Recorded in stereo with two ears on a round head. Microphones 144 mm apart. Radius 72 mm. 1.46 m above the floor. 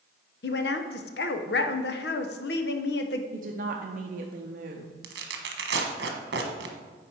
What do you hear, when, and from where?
0.4 s a woman speaking: 70° left (ahead or behind), 0.8 m
3.3 s a woman speaking: 55° right (ahead or behind), 0.6 m
5.0 s tearing paper: 70° right (ahead or behind), 1.1 m